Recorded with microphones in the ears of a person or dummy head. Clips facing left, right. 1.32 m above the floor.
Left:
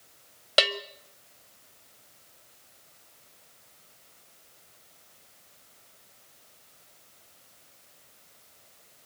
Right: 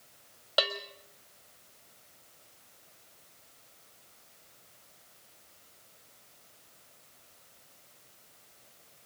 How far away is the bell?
About 0.8 m.